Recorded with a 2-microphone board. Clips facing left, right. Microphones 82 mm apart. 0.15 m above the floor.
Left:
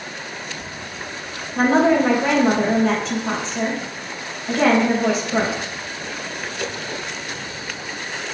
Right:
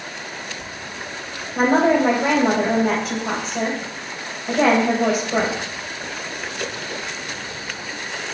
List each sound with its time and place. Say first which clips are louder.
1.6 s a woman speaking: even; 10° right (ahead or behind), 4 m